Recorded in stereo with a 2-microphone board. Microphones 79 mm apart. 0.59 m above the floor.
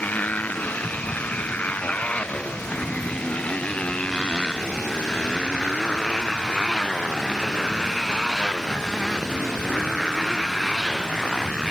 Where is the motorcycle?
20° left (ahead or behind); by 11.7 s 5° left (ahead or behind).